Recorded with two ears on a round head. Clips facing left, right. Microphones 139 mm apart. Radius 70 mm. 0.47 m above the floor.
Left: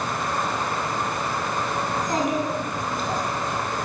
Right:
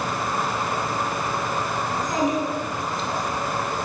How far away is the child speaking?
About 3 m.